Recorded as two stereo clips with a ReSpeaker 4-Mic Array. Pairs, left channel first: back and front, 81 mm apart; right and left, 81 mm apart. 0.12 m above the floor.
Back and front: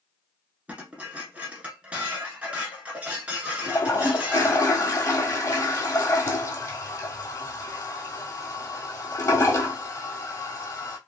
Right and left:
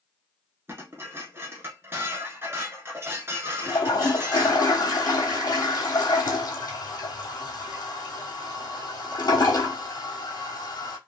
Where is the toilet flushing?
130° right, 0.8 m.